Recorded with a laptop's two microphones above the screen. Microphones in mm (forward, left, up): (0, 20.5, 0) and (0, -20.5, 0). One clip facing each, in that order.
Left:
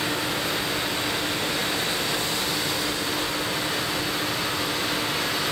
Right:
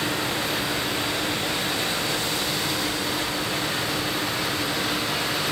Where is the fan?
70° right (ahead or behind), 5.5 m.